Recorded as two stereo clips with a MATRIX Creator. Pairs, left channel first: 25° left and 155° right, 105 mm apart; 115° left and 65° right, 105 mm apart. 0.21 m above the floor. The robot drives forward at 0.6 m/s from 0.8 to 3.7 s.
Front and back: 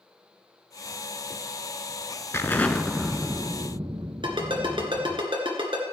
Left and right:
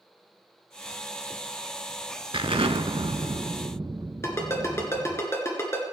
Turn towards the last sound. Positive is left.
turn(degrees=175)